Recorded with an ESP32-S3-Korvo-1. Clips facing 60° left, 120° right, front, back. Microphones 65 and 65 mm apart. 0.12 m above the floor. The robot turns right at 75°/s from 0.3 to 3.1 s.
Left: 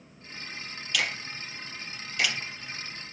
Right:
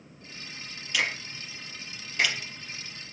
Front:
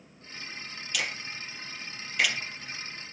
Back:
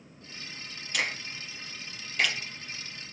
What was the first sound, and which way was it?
A finger snap, 175° right.